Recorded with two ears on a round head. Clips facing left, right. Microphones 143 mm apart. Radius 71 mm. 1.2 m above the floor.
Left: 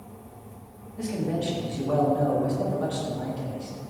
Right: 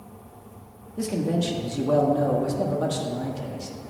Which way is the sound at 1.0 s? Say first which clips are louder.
Right 3 dB; 50° right (ahead or behind).